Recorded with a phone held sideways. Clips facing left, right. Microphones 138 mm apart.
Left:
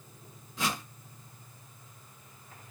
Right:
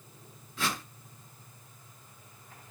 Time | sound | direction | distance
0.6 | a whoosh | 20° left (ahead or behind) | 1.6 m